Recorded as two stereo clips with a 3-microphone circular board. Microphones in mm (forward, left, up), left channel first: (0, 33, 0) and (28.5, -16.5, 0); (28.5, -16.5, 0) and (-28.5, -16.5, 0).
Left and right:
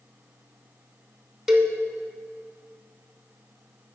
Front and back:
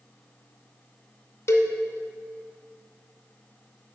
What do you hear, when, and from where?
1.5 s a cowbell: 20° left, 0.8 m